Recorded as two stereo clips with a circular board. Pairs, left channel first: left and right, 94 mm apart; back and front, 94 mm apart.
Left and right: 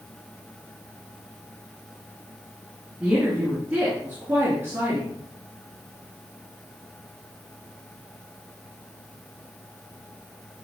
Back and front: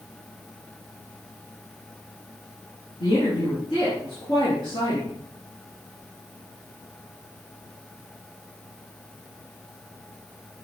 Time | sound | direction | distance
3.0 | a woman speaking | 165° right | 3 m